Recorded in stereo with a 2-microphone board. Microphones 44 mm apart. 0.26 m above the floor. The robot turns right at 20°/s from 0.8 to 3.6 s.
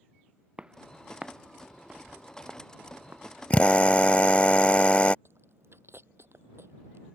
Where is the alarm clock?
No alarm clock in this recording.